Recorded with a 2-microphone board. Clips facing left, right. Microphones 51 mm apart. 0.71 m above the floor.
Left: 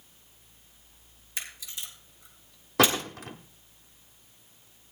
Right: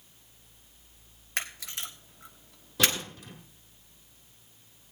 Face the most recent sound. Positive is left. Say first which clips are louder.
# left 5 dB
turn(degrees=75)  # may be behind; listen again after turning